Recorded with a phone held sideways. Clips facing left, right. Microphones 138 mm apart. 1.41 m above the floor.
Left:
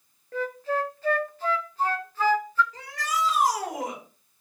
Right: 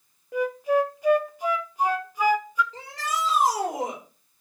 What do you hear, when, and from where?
0.3 s a flute: 15° right (ahead or behind), 0.7 m
2.7 s a shout: 25° right (ahead or behind), 4 m